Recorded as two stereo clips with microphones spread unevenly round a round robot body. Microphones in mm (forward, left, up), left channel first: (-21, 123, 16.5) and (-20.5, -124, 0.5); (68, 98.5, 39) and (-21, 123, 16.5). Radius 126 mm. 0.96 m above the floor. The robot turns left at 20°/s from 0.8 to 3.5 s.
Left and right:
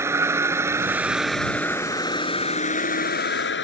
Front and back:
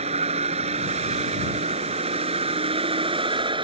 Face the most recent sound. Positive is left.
turn(degrees=135)